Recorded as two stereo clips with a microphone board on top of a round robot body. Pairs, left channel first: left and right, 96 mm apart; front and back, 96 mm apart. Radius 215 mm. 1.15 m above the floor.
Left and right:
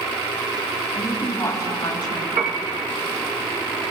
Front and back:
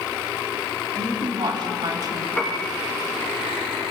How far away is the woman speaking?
About 3 m.